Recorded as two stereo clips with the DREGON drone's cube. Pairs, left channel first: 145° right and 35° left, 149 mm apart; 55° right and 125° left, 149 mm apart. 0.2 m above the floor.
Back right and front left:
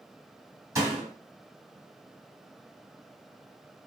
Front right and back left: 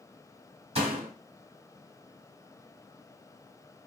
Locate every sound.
0.8 s a door slam: 95° left, 1.2 m